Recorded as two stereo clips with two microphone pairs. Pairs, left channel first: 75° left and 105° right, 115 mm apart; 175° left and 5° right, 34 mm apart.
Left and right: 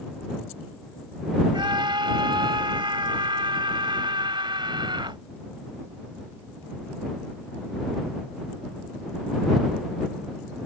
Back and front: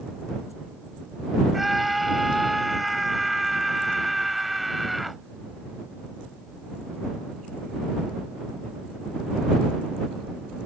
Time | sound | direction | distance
1.5 | a scream | 90° right | ?